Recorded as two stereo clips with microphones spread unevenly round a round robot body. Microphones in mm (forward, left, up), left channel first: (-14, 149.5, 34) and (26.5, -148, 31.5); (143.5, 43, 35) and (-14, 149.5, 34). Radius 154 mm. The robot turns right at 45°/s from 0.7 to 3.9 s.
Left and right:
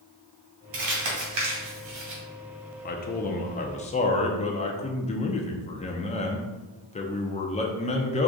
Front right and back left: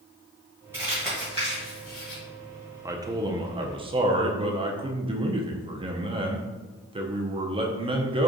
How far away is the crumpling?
About 1.9 m.